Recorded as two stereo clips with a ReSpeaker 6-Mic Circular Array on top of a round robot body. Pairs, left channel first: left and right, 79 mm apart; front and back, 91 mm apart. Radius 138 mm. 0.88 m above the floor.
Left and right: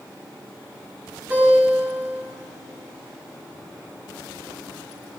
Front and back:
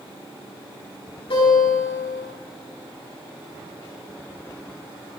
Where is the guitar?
20° right, 8.5 m.